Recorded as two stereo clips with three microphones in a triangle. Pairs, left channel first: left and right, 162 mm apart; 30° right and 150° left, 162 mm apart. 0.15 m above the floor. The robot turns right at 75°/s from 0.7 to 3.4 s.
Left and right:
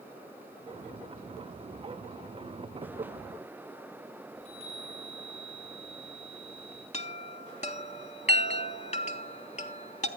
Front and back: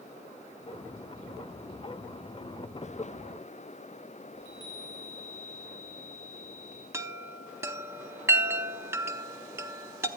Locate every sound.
4.3 s a chime: 35° left, 3 m
6.9 s a chime: 85° left, 0.5 m